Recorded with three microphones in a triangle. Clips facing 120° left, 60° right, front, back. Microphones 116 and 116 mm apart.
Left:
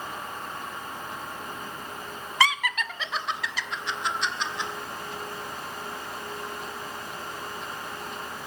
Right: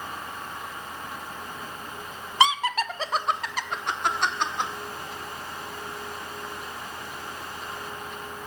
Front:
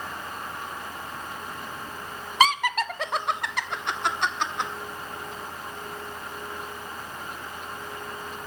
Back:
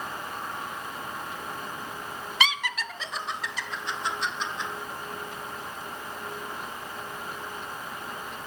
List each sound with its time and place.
2.4 s laughter: straight ahead, 0.6 m; by 4.7 s 25° right, 2 m